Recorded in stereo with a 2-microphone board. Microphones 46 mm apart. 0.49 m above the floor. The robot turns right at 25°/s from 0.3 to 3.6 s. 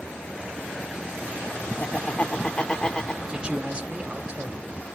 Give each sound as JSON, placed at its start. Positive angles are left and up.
{"t": 1.8, "sound": "laughter", "azimuth_deg": 120, "distance_m": 1.1}
{"t": 3.3, "sound": "a man speaking", "side_deg": -20, "distance_m": 1.1}